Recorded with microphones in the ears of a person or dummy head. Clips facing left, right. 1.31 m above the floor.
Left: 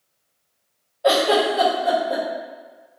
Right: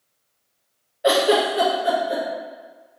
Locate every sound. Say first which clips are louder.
1.0 s a giggle: even; 10° right (ahead or behind), 0.7 m